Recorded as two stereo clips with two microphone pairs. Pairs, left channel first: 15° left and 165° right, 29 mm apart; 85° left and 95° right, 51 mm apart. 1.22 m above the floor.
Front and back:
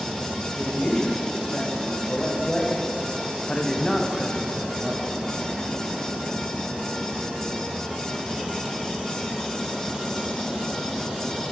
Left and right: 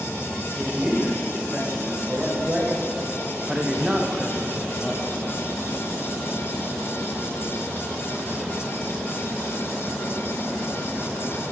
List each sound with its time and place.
0.5 s a man speaking: 30° right, 2 m; by 5.1 s 155° left, 0.6 m